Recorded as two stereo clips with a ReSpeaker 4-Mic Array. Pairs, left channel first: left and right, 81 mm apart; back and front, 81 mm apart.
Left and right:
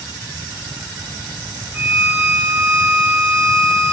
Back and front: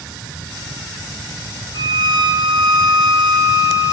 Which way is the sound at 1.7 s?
25° right.